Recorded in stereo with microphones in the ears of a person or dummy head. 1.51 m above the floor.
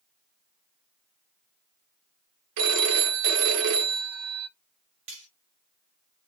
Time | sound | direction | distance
2.6 | a phone ringing | 60° right (ahead or behind) | 0.8 m
5.1 | cutlery clinking | 30° right (ahead or behind) | 1.3 m